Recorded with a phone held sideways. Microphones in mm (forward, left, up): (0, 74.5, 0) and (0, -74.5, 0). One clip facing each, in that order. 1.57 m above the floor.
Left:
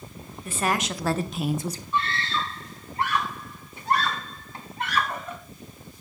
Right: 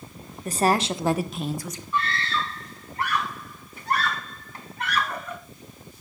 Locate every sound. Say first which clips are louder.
0.5 s a woman speaking: right 5 dB; 40° right (ahead or behind), 1.5 m; by 1.8 s 40° left (ahead or behind), 0.8 m
1.9 s a scream: right 2 dB; 30° left (ahead or behind), 3 m